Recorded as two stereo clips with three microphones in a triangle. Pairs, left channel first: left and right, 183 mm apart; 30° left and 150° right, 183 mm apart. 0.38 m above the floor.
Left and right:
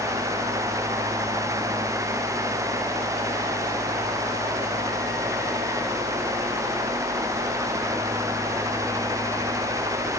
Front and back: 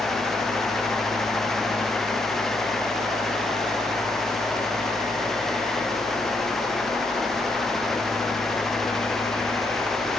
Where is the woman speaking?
No woman speaking in this recording.